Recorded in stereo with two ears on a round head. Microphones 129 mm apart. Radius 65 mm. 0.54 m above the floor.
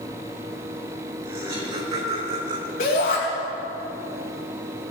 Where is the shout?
55° left (ahead or behind), 4 m.